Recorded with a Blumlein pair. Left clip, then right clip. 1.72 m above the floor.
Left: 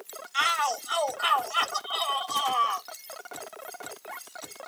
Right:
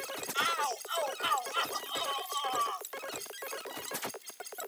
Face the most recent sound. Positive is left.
turn(degrees=65)